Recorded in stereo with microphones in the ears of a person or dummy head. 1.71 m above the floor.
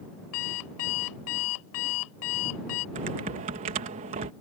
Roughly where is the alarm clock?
Left.